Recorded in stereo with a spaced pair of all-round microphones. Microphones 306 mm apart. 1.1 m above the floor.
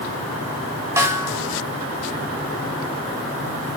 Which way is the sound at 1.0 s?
10° right (ahead or behind).